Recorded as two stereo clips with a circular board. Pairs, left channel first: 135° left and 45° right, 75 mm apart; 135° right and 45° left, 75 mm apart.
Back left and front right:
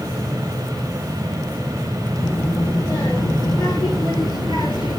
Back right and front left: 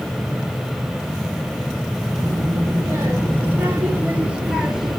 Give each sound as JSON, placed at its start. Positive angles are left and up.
{"t": 2.2, "sound": "a child speaking", "azimuth_deg": 95, "distance_m": 5.0}